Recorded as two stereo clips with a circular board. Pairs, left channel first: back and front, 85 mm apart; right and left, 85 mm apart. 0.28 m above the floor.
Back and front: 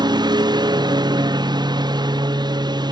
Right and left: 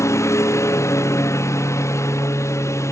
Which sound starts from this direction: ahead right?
A lawn mower, at 0.0 s.